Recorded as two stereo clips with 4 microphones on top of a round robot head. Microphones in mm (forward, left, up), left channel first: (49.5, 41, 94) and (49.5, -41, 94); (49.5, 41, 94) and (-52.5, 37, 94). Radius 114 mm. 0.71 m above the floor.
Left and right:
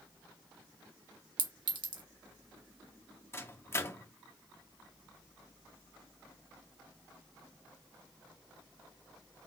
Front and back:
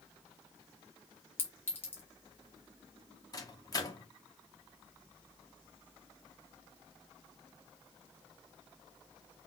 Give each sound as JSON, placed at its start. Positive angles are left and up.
{"t": 1.4, "sound": "a clink", "azimuth_deg": -70, "distance_m": 1.4}
{"t": 3.3, "sound": "a microwave", "azimuth_deg": 40, "distance_m": 1.1}